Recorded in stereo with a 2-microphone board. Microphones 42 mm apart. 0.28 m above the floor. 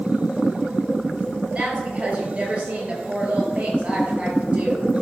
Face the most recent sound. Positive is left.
turn(degrees=-25)  # may be behind; listen again after turning